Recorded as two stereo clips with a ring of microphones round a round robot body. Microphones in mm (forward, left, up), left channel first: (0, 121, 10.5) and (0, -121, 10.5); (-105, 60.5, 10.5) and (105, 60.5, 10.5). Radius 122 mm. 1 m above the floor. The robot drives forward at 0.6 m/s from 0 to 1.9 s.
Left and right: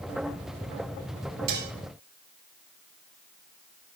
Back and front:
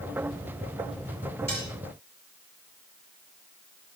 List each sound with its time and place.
1.5 s dishes clattering: 100° right, 2.5 m